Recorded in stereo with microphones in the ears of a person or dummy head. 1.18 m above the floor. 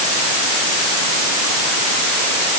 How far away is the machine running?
I don't hear a machine running.